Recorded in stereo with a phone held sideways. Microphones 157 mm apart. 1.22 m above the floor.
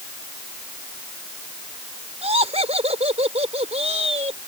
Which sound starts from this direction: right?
Laughter, at 2.2 s.